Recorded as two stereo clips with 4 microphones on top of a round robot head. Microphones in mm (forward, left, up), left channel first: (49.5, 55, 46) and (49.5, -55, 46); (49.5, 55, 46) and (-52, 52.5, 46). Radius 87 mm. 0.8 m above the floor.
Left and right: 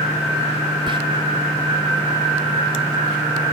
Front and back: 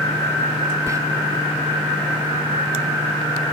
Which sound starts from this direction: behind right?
Whispering, at 0.9 s.